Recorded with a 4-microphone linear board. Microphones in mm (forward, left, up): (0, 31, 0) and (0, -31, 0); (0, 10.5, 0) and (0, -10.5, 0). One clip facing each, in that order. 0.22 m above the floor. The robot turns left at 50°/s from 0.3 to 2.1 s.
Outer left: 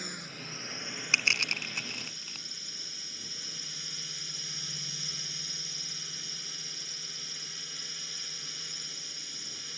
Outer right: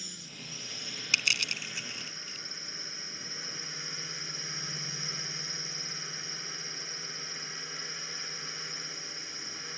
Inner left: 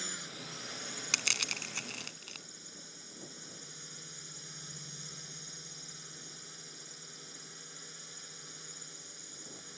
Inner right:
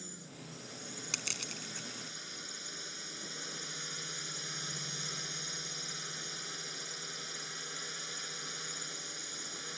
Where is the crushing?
25° left (ahead or behind); by 2.5 s 60° left (ahead or behind).